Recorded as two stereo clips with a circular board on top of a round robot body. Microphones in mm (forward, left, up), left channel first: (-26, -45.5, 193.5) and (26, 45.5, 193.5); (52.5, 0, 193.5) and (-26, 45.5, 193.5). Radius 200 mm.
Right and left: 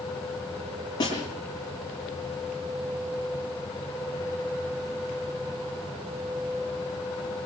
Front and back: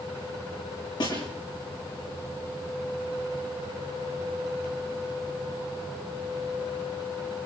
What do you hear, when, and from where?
1.0 s a snare drum: 70° right, 8.5 m